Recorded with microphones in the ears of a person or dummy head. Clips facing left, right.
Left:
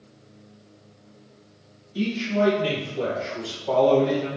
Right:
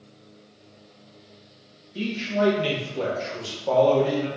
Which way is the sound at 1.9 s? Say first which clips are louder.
Left 2 dB; 5° right (ahead or behind).